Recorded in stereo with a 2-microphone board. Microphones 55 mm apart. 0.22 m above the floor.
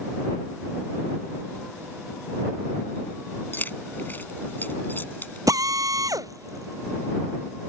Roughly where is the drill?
Right.